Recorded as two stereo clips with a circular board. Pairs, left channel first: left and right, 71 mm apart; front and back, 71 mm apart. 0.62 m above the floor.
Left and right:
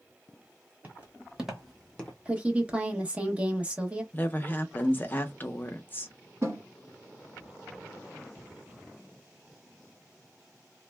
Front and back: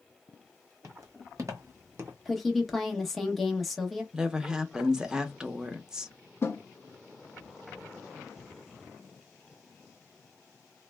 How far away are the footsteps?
About 1.3 m.